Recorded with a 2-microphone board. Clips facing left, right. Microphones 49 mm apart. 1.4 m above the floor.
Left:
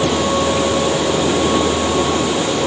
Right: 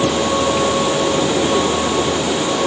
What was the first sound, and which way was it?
Only background noise.